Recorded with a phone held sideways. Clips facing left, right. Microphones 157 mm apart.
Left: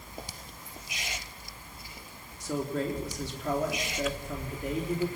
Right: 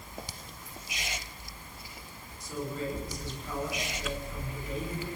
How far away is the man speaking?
About 4 m.